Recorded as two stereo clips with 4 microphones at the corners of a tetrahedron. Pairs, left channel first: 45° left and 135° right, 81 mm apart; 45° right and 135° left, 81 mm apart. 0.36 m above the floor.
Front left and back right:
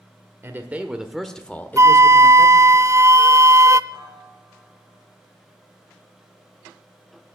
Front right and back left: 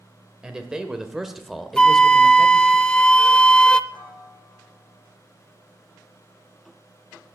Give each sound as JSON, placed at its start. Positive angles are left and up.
{"t": 0.4, "sound": "a man speaking", "azimuth_deg": -155, "distance_m": 1.3}
{"t": 1.8, "sound": "a flute", "azimuth_deg": -115, "distance_m": 0.5}
{"t": 3.9, "sound": "a piano", "azimuth_deg": -40, "distance_m": 8.0}